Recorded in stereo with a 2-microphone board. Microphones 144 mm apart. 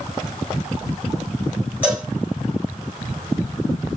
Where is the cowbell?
10° right (ahead or behind), 1.7 m.